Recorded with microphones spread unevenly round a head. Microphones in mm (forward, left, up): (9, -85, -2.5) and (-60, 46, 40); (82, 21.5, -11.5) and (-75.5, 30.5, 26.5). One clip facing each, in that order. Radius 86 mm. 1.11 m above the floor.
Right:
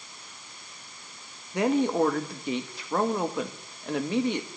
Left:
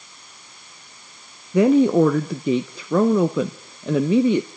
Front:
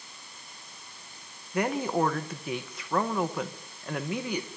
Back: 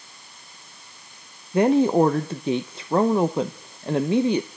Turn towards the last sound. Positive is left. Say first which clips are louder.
# left 9 dB, back 10 dB
turn(degrees=110)